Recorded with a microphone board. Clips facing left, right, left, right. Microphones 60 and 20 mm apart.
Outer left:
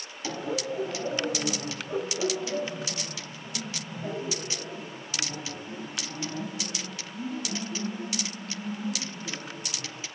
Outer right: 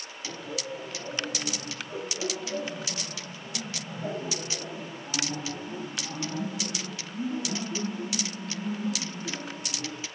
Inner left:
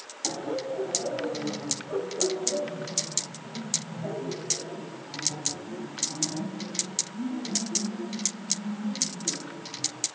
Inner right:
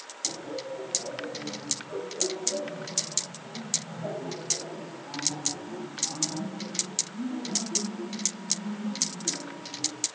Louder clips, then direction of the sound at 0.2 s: Outer left 5 dB, inner left 4 dB; 50° left (ahead or behind).